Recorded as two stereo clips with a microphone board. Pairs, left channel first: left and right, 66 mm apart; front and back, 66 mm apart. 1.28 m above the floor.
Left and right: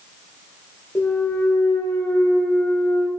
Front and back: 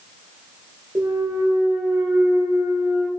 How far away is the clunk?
About 0.6 m.